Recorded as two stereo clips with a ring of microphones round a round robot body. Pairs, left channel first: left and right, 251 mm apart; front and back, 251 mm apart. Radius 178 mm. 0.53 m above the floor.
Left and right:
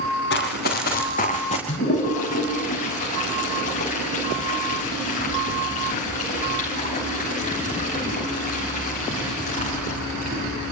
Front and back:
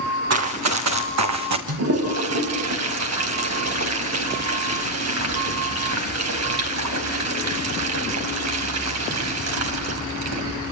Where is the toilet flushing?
160° left, 4 m.